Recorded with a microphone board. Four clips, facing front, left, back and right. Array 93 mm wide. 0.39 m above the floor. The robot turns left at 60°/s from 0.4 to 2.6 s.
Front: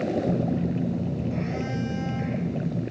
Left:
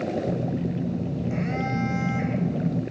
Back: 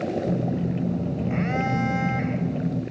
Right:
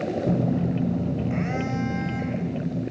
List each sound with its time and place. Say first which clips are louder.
0.3 s a phone buzzing: right 3 dB, even; 95° right, 0.7 m; by 2.8 s 135° left, 0.7 m